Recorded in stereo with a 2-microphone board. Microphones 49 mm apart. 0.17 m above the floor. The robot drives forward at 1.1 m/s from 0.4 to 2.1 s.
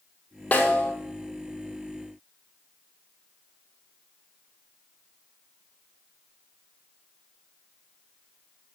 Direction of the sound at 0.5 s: 25° left (ahead or behind).